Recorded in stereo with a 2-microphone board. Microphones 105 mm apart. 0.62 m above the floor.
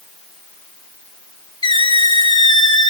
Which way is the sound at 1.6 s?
45° left (ahead or behind).